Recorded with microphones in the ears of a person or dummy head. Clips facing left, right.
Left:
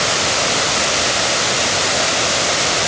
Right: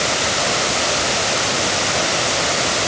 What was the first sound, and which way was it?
Only background noise.